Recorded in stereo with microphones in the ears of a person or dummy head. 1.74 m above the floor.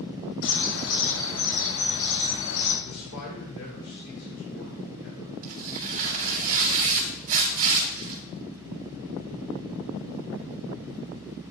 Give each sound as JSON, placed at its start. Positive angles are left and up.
{"t": 0.4, "sound": "a bird", "side_deg": 70, "distance_m": 3.5}
{"t": 2.9, "sound": "a man speaking", "side_deg": 80, "distance_m": 2.5}
{"t": 5.4, "sound": "tearing paper", "side_deg": -45, "distance_m": 2.0}